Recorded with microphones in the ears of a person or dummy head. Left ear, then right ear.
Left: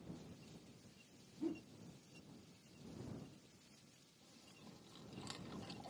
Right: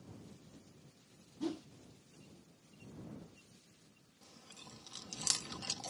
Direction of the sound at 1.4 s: 60° right (ahead or behind).